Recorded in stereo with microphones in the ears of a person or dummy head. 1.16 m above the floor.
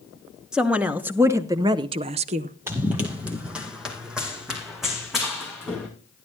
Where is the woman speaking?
5° right (ahead or behind), 1.3 m; by 2.5 s 35° right (ahead or behind), 0.6 m.